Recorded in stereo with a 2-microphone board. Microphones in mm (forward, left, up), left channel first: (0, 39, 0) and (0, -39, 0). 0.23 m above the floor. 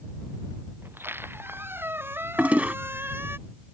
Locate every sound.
0.8 s a squeak: 30° right (ahead or behind)
2.4 s a toilet flushing: 20° right (ahead or behind)